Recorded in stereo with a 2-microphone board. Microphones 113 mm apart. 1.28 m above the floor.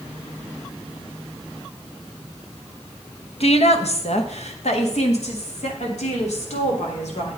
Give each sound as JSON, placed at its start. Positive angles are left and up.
{"t": 3.4, "sound": "a woman speaking", "side_deg": 65, "distance_m": 1.0}